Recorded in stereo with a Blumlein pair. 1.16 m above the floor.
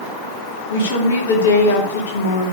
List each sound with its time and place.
0.7 s a woman speaking: 60° left, 3 m